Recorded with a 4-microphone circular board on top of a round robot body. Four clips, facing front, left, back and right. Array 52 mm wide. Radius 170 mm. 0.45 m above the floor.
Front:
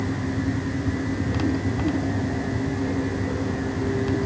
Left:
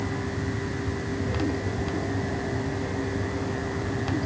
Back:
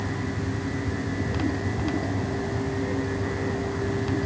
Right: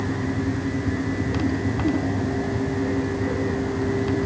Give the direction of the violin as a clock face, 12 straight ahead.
No violin in this recording.